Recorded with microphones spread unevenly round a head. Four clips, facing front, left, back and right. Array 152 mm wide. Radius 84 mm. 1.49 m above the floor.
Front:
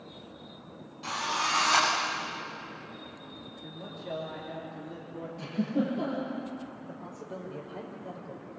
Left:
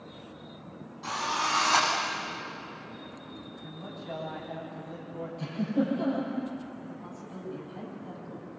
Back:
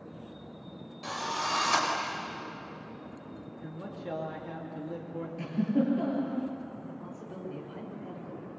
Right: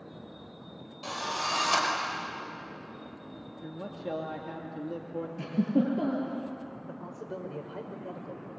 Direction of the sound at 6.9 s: 70° right.